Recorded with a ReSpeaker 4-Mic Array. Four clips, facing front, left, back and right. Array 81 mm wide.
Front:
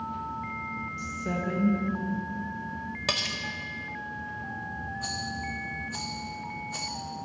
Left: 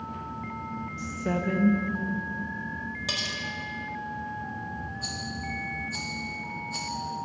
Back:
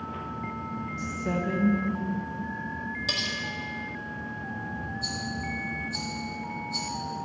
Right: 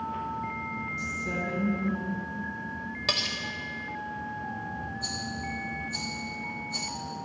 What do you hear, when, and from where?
1.0 s a woman speaking: 100° left, 0.8 m
3.1 s cutlery clinking: 25° right, 0.6 m
5.0 s a rattle: 15° left, 1.0 m